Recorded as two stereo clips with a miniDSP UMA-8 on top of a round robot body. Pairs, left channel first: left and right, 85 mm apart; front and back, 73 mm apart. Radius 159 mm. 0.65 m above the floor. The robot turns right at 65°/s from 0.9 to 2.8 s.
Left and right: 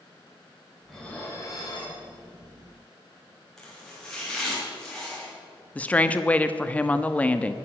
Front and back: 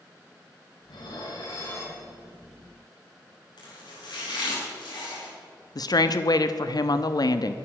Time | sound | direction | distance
0.9 | dishes clattering | straight ahead | 4 m
3.6 | chopping | 5° left | 5.5 m
5.8 | a woman speaking | 15° left | 1.1 m